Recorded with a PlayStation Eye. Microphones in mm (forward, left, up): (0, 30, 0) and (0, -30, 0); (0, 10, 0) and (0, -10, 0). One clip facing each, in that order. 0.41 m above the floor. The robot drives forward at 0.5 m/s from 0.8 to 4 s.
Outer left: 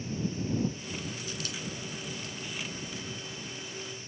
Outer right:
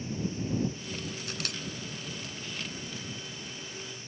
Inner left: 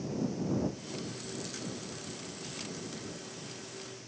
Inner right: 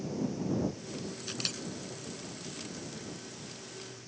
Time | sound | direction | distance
1.3 | a camera shutter | 65° right (ahead or behind) | 0.7 m